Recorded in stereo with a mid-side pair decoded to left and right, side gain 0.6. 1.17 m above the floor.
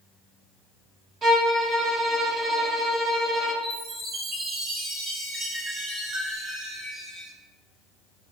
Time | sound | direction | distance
1.2 | a violin | 40° right | 1.1 m
3.6 | a chime | 50° right | 1.4 m